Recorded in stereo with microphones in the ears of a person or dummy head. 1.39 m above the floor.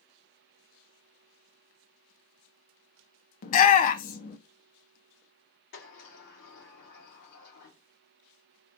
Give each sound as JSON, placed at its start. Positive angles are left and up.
{"t": 3.4, "sound": "a shout", "side_deg": 45, "distance_m": 0.5}
{"t": 5.7, "sound": "a sliding door", "side_deg": 60, "distance_m": 2.0}